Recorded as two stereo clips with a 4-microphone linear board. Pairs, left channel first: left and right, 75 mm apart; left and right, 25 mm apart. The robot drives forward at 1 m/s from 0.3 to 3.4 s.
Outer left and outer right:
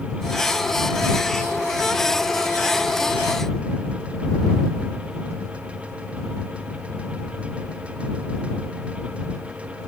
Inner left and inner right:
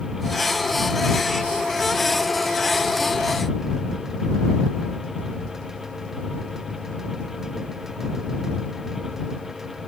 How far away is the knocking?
I don't hear knocking.